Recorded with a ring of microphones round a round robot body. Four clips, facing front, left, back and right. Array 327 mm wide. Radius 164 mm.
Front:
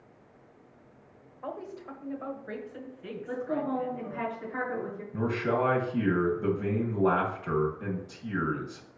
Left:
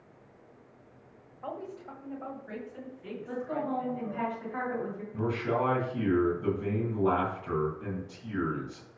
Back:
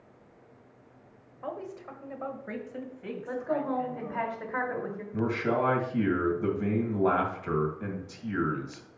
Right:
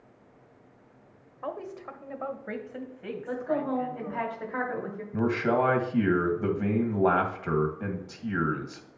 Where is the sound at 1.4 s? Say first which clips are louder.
Right 3 dB, back 1 dB; 95° right, 1.2 m; by 4.3 s 110° right, 2.5 m.